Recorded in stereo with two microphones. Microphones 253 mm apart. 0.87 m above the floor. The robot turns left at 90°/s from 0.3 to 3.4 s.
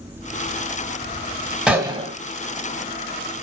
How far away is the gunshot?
About 0.8 m.